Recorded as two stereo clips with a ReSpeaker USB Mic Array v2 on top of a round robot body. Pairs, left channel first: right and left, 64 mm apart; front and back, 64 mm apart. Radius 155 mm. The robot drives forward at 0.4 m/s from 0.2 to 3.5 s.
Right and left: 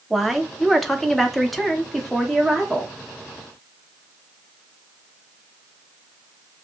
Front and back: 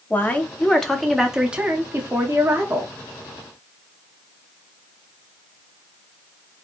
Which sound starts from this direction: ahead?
A woman speaking, at 0.1 s.